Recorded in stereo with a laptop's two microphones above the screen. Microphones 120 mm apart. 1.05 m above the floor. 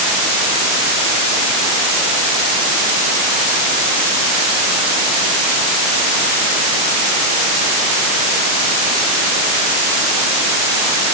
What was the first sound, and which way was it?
Only background noise.